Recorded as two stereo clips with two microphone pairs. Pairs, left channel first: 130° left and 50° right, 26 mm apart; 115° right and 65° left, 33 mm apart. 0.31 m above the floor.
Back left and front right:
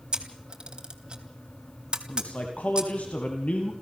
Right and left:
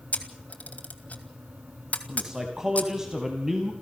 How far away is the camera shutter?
About 2 m.